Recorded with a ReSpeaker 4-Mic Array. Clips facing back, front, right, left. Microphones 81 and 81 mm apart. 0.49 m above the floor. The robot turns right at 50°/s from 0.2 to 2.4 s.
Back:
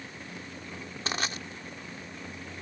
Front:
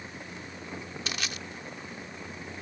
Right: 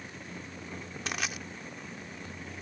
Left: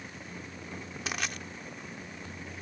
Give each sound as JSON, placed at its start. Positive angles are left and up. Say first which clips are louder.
{"t": 1.1, "sound": "crushing", "louder": "back 5 dB, even", "azimuth_deg": 175}